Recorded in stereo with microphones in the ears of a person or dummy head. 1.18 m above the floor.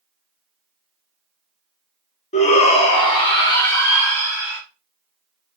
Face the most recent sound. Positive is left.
turn(degrees=10)  # may be behind; listen again after turning